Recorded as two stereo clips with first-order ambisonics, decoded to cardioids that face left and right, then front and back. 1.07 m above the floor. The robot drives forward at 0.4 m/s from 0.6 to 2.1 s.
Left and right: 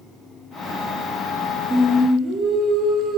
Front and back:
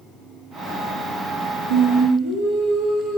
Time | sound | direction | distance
1.7 | singing | straight behind | 2.5 m